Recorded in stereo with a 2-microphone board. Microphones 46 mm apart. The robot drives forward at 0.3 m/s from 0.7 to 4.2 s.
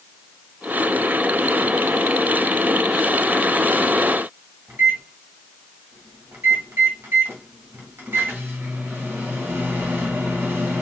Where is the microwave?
55° right (ahead or behind), 1.9 m.